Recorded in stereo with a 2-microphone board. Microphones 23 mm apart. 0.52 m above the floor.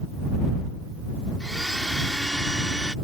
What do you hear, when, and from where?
1.4 s a blender: 30° left (ahead or behind)